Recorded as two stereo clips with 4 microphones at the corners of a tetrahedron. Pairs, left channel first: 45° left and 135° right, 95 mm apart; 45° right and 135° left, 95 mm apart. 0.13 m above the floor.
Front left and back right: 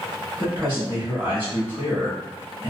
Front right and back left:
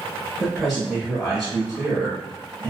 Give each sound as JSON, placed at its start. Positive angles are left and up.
{"t": 0.4, "sound": "a man speaking", "azimuth_deg": -135, "distance_m": 1.1}